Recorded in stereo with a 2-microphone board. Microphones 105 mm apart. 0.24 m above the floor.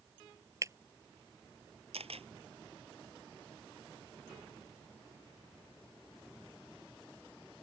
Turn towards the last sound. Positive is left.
turn(degrees=-75)  # may be behind; listen again after turning